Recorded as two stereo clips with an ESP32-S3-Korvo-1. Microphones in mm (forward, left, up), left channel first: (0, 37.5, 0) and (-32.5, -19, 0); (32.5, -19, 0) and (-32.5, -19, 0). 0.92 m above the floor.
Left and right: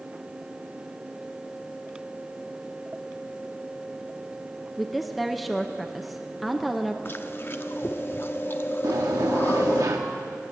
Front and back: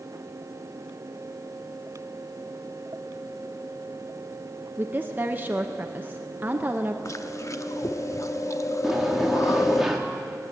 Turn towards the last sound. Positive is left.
turn(degrees=-95)